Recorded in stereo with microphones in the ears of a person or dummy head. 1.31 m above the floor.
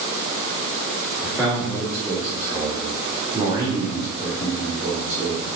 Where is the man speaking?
5° left (ahead or behind), 3.5 m; by 5.5 s 45° right (ahead or behind), 3 m.